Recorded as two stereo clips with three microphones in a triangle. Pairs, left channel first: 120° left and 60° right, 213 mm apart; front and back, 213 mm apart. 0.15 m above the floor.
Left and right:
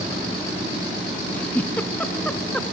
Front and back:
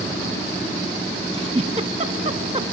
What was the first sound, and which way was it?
A giggle, 165° right.